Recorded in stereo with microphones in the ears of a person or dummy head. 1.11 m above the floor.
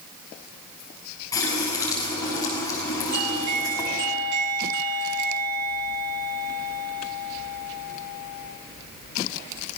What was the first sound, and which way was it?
A running tap, 10° left (ahead or behind).